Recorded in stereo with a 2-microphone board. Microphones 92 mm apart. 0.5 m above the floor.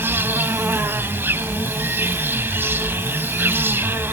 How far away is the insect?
About 1.0 m.